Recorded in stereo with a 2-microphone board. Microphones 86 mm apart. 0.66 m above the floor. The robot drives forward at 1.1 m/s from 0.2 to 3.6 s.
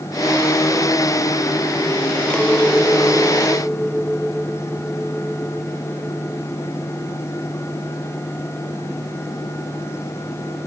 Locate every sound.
2.3 s a clink: 10° left (ahead or behind); by 6.4 s 5° left (ahead or behind)